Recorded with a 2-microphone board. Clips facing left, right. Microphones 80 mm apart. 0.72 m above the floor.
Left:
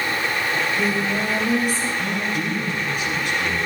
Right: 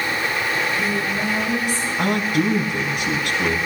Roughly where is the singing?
Left.